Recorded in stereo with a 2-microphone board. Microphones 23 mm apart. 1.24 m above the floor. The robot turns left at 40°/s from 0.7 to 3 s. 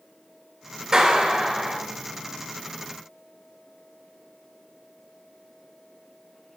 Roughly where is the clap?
Behind right.